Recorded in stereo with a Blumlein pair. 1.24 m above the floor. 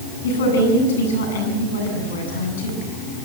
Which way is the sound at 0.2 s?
60° left.